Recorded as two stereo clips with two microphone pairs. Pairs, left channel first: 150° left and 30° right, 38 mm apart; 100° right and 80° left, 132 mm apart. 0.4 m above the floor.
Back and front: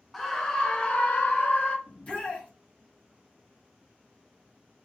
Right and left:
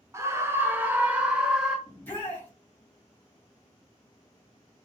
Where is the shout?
170° right, 3 m.